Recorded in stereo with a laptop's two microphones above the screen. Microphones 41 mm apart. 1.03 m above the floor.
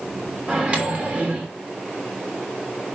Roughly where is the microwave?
Right.